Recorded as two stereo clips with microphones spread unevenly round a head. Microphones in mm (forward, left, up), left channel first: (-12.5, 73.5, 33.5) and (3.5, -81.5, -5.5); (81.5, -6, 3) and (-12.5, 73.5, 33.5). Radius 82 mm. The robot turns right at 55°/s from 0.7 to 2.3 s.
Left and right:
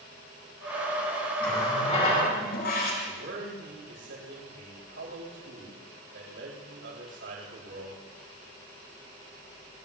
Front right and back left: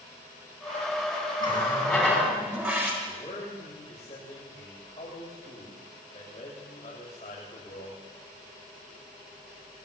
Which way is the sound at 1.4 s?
10° left.